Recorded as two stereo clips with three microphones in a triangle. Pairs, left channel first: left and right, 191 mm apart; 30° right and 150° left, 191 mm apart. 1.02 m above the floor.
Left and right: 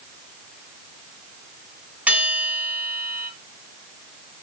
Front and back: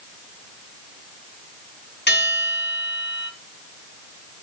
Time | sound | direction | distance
2.1 | a bell | 5° right | 4 m